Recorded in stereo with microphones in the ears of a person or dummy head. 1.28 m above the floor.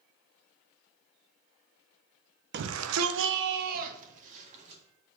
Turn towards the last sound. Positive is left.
turn(degrees=-40)  # may be behind; listen again after turning